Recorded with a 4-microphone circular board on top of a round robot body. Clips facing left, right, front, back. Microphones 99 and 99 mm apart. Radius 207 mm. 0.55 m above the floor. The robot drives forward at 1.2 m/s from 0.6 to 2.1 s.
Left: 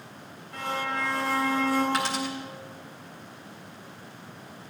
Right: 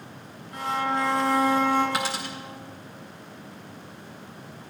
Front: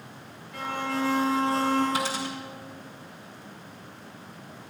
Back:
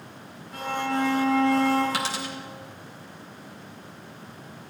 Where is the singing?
I don't hear singing.